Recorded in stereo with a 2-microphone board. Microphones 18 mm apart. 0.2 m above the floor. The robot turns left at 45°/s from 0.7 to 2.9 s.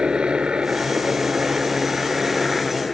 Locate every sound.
0.0 s a helicopter: 85° right; by 2.9 s 175° left